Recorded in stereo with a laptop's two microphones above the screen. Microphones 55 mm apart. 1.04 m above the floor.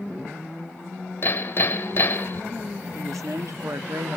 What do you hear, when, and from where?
1.2 s hammering: 45° left (ahead or behind), 1.1 m
2.9 s a woman speaking: 75° right (ahead or behind), 1.7 m